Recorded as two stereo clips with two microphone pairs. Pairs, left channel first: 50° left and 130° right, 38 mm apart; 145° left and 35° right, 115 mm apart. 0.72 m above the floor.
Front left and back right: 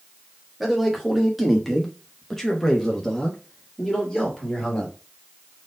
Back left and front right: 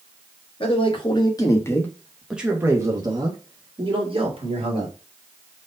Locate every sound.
0.6 s a man speaking: 145° left, 1.5 m; by 5.0 s 30° right, 2 m